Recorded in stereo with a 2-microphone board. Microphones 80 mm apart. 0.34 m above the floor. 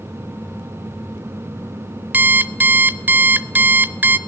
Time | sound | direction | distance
2.1 | an alarm clock | 20° right (ahead or behind) | 0.6 m